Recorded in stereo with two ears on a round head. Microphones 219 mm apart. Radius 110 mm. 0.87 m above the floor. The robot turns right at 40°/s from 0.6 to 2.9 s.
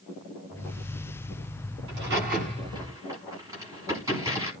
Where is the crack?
55° right (ahead or behind), 9 m; by 4.5 s 15° right (ahead or behind), 9 m.